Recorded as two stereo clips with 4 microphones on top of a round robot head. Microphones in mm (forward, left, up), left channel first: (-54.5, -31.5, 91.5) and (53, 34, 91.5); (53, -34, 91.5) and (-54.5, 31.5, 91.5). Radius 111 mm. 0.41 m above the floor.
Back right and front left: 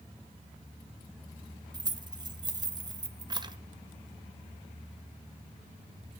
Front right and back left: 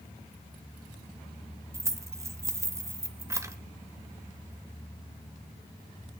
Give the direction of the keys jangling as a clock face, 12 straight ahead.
9 o'clock.